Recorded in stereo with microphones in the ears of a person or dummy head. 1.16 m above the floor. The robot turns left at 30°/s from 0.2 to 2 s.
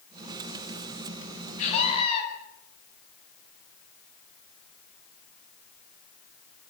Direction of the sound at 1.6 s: 45° left (ahead or behind).